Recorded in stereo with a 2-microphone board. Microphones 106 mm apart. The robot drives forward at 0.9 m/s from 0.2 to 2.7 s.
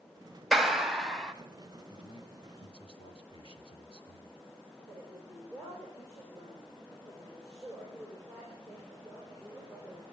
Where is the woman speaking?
25° left (ahead or behind), 6.5 m.